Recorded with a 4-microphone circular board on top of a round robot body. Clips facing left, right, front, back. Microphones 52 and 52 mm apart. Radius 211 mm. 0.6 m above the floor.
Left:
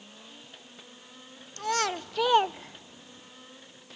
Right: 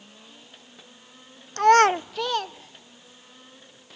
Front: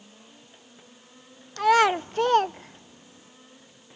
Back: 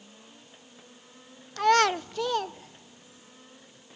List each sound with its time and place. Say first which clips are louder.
1.6 s a child speaking: right 13 dB, front 2 dB; 90° right, 0.6 m; by 3.3 s 50° left, 1.0 m